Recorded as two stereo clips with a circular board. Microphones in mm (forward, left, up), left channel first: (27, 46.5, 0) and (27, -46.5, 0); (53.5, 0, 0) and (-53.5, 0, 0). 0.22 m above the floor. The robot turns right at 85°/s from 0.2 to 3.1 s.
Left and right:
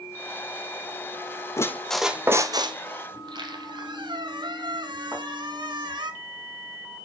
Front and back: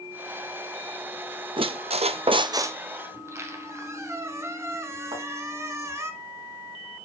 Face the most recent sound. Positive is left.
turn(degrees=-150)